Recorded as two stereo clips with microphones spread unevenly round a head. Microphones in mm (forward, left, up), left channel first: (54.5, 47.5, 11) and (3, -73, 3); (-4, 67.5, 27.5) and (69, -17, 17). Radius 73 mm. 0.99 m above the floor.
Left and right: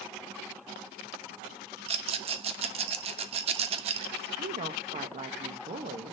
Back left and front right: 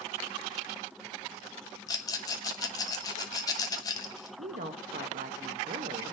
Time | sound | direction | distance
1.9 | a rattle | 165° right | 0.7 m
4.4 | a woman speaking | 75° right | 0.8 m